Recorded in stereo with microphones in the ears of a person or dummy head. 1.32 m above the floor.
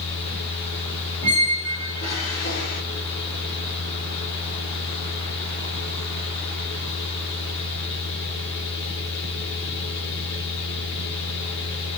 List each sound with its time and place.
0.0 s a fan: 65° left (ahead or behind), 2.5 m
1.2 s a squeak: 60° left (ahead or behind), 2 m